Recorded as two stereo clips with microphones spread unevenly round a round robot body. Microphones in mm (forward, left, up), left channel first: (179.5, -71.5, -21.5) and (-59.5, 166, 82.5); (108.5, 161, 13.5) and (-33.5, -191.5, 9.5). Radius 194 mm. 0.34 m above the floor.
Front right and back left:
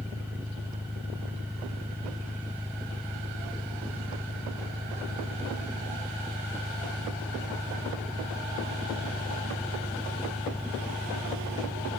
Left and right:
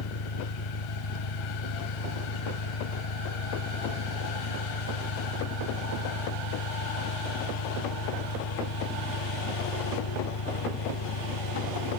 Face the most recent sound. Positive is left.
turn(degrees=50)